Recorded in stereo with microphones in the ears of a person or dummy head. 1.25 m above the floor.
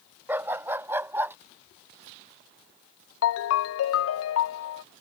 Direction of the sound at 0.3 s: 10° right (ahead or behind).